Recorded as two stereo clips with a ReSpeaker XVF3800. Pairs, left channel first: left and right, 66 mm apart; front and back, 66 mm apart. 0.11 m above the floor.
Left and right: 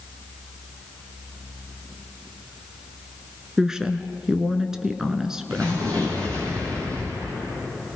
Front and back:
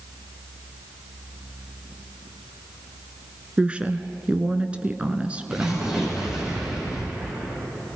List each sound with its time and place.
3.6 s a woman speaking: 155° right, 1.2 m
5.5 s an explosion: 100° right, 8.5 m